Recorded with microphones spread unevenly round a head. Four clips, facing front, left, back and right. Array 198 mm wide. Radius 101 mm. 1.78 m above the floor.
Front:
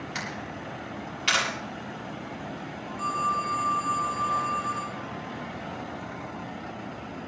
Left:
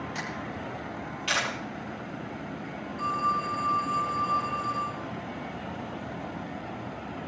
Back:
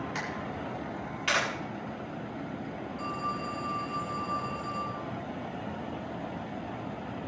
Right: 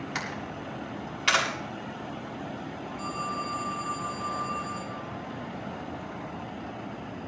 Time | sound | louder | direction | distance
0.1 | a camera shutter | even, even | 80° right | 8 m
3.0 | a phone ringing | left 6 dB, front 8 dB | 50° left | 4.5 m